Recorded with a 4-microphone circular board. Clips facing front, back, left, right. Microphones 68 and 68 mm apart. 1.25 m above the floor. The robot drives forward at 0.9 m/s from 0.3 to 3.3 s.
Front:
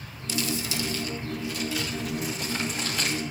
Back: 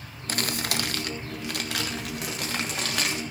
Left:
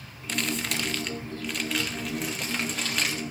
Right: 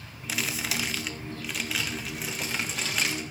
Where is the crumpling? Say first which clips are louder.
Even, left 2 dB; 175° right, 0.8 m; by 3.2 s straight behind, 3.5 m.